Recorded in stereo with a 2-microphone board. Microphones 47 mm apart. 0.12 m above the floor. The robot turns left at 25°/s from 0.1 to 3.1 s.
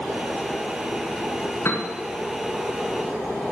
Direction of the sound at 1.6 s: 70° left (ahead or behind).